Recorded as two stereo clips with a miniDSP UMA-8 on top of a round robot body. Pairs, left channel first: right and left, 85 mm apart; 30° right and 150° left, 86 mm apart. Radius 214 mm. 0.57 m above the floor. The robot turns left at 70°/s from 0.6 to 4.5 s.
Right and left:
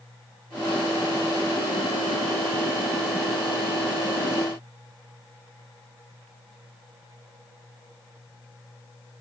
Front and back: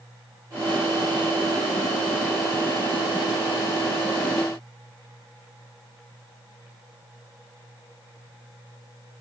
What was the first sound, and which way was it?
Only background noise.